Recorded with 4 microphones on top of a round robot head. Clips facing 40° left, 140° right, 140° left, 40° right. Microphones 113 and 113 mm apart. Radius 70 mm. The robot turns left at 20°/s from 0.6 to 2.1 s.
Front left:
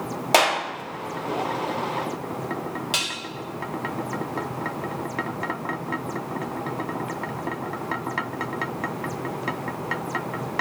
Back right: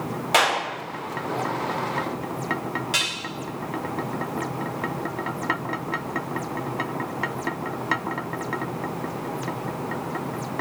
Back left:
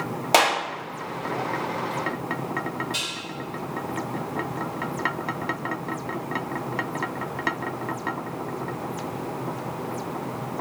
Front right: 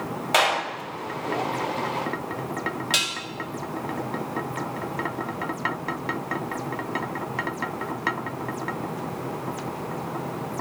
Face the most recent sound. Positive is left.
turn(degrees=-30)